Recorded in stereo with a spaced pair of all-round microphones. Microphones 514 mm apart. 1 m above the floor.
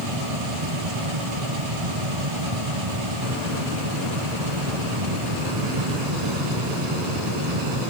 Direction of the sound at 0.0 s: 75° right (ahead or behind).